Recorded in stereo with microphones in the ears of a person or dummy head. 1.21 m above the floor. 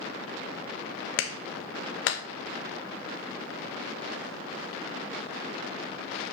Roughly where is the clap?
Left.